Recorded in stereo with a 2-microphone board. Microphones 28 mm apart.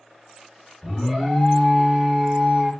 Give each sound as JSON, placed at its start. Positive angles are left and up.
{"t": 0.8, "sound": "an alarm", "side_deg": -5, "distance_m": 3.0}